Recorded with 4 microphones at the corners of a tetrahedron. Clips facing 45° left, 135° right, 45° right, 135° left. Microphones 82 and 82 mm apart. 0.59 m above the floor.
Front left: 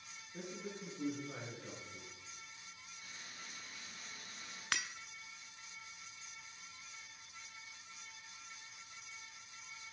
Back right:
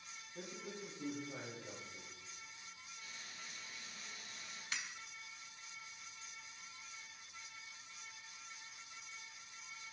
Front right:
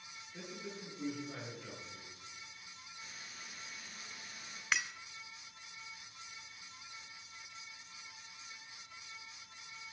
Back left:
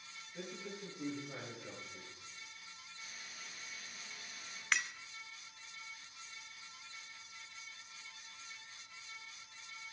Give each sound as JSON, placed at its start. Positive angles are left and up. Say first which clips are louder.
{"t": 0.3, "sound": "a man speaking", "louder": "front left 2 dB, even", "azimuth_deg": 30, "distance_m": 7.0}
{"t": 3.0, "sound": "frying", "louder": "front left 1 dB, even", "azimuth_deg": 5, "distance_m": 5.0}
{"t": 4.7, "sound": "breaking glass", "louder": "front left 6 dB, even", "azimuth_deg": 40, "distance_m": 0.7}